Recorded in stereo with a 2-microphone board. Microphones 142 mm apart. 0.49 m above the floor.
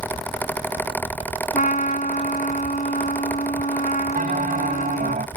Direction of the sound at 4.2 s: 70° right (ahead or behind).